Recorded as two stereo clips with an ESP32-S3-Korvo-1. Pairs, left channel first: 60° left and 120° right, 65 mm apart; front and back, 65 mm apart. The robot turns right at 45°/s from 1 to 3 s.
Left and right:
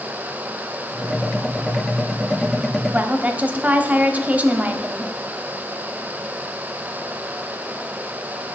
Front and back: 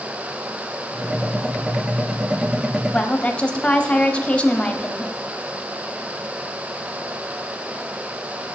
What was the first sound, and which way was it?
A woman speaking, 65° right.